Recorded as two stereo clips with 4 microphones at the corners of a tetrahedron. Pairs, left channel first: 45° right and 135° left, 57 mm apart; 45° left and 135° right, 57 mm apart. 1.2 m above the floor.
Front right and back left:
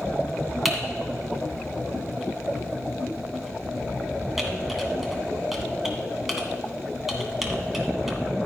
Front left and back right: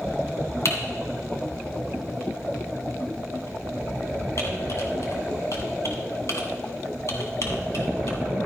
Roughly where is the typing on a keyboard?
Ahead left.